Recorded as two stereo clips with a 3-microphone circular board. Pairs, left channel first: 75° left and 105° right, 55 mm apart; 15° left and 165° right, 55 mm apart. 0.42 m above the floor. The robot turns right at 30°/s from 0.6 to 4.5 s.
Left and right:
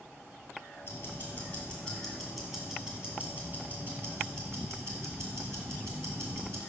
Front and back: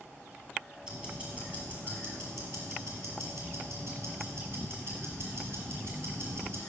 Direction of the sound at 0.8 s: 115° left.